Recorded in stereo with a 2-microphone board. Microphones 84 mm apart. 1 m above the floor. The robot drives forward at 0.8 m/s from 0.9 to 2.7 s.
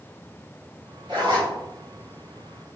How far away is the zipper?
About 1.8 m.